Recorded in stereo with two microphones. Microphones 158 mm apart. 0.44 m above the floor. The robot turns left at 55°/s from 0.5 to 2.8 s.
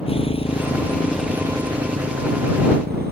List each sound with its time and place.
0.0 s a motorcycle: 35° left; by 3.1 s 90° right